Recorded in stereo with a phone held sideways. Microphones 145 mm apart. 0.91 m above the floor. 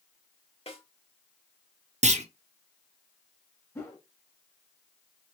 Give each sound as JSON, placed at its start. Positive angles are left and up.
{"t": 0.7, "sound": "a snare drum", "side_deg": 40, "distance_m": 1.0}
{"t": 2.0, "sound": "a clunk", "side_deg": -50, "distance_m": 0.6}
{"t": 3.8, "sound": "a whoosh", "side_deg": 15, "distance_m": 1.5}